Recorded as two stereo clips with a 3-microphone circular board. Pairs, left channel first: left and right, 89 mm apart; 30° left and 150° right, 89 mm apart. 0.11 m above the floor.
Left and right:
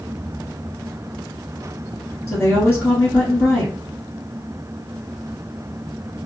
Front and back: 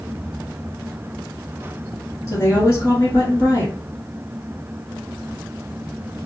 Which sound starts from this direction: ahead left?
A woman speaking, at 2.3 s.